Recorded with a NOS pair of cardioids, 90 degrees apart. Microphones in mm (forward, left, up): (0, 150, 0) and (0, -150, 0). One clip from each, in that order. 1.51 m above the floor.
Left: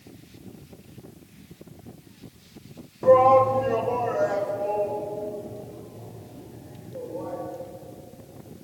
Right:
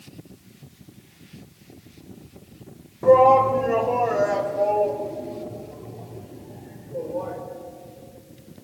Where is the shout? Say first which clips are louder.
Right 2 dB; 5° right, 1.6 m; by 7.4 s 50° right, 6 m.